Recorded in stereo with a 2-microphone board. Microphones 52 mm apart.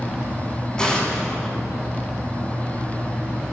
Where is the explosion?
15° left (ahead or behind), 6 m.